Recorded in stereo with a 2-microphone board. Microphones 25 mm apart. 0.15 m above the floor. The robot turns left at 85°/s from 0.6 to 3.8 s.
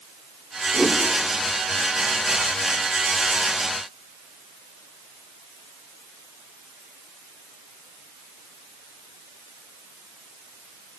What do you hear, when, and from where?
0.7 s a whoosh: 25° left (ahead or behind), 1.3 m; by 1.0 s 35° left (ahead or behind), 1.3 m